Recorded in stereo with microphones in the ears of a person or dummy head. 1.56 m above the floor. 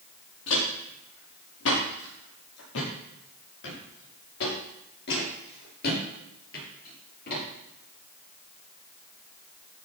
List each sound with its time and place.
0.5 s footsteps: 70° left (ahead or behind), 6.5 m; by 7.4 s 45° left (ahead or behind), 8.5 m